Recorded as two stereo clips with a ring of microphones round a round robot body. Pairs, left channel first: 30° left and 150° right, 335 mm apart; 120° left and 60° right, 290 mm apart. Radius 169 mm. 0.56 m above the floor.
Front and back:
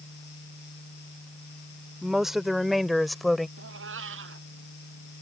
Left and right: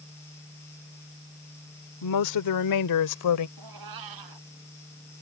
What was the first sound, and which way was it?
A woman speaking, 120° left.